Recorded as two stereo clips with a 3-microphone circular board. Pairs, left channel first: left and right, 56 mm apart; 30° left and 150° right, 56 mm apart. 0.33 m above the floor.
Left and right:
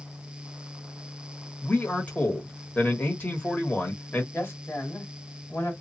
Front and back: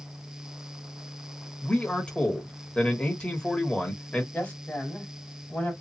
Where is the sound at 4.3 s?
75° left, 1.9 m.